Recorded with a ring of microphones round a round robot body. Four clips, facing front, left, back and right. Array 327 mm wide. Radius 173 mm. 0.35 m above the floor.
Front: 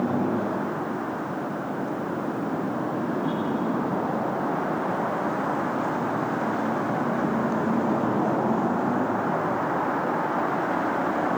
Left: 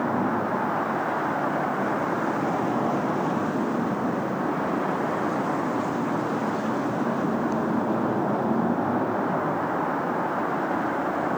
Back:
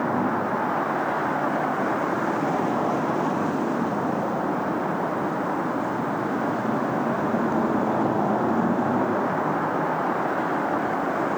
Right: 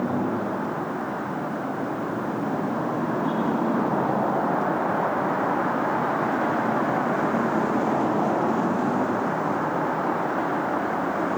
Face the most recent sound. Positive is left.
No sound to turn to.